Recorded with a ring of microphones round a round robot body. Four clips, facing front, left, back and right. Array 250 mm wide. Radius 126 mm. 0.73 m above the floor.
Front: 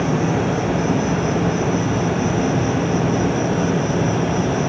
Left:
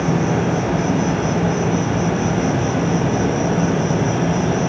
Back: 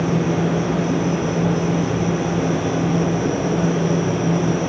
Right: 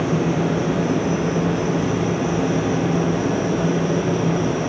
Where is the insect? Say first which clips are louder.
Left 2 dB, even; 50° left, 7.5 m.